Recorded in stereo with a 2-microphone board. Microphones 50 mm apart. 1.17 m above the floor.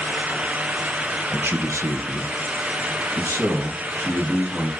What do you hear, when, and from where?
1.3 s a man speaking: 45° right (ahead or behind), 1.0 m; by 4.7 s 50° right (ahead or behind), 2.5 m